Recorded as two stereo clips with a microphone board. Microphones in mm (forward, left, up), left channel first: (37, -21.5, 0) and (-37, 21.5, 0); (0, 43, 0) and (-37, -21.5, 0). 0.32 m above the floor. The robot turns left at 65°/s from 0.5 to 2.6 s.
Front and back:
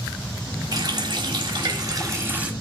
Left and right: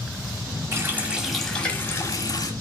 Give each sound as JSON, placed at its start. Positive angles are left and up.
{"t": 0.7, "sound": "a running tap", "azimuth_deg": -165, "distance_m": 1.5}